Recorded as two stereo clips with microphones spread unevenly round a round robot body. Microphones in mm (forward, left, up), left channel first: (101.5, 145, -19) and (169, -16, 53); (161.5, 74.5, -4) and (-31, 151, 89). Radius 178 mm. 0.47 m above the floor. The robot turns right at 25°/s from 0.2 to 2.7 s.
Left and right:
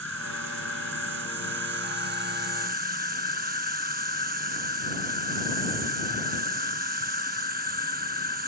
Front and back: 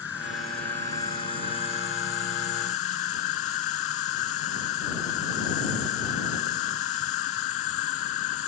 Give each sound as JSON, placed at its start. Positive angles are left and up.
{"t": 0.0, "sound": "an insect", "azimuth_deg": -100}